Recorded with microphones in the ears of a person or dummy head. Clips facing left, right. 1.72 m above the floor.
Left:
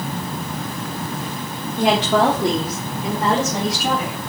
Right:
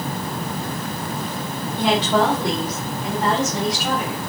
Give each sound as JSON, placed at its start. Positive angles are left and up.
{"t": 1.8, "sound": "a woman speaking", "side_deg": 35, "distance_m": 1.1}